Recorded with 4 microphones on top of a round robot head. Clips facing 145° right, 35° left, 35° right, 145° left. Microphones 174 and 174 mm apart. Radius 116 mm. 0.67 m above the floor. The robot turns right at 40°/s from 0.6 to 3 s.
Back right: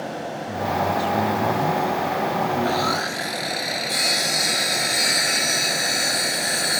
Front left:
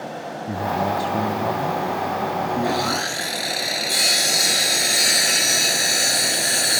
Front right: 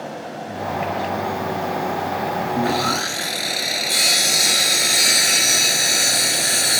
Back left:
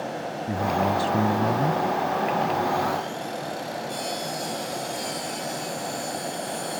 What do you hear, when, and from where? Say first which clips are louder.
0.5 s a man speaking: front left 1 dB, back left 1 dB; 90° left; by 1.8 s 140° left
2.5 s sawing: even, front right 4 dB; 45° right; by 6.8 s 25° right